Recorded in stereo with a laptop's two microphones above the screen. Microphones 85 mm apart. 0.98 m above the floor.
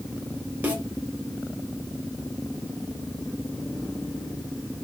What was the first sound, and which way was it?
A snare drum, 20° right (ahead or behind).